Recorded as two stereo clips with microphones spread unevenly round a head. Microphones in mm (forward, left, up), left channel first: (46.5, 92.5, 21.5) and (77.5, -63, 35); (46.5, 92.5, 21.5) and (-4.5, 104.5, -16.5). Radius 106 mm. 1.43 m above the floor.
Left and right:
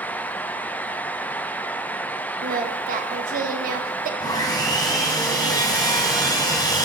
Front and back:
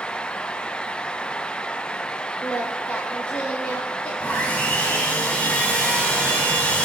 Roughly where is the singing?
Ahead right.